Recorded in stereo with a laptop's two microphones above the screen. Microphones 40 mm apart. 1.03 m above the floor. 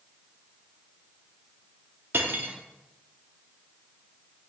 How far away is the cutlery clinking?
About 0.8 m.